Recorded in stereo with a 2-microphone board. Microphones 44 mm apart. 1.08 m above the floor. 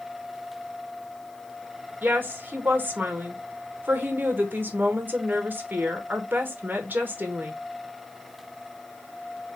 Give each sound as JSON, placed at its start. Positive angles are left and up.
{"t": 2.0, "sound": "a woman speaking", "side_deg": -45, "distance_m": 1.1}